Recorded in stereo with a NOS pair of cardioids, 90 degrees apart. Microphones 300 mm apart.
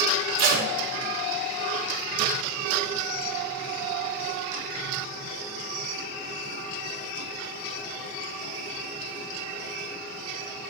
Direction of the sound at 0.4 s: 65° right.